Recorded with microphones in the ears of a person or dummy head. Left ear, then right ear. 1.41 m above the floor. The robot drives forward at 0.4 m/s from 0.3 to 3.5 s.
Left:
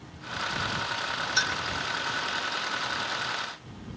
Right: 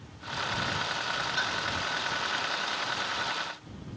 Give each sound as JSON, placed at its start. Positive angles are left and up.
{"t": 1.4, "sound": "a clink", "side_deg": 70, "distance_m": 3.0}